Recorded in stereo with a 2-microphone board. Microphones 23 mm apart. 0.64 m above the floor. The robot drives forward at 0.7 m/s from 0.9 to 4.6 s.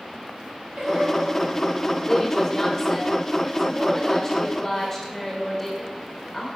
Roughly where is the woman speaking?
Centre.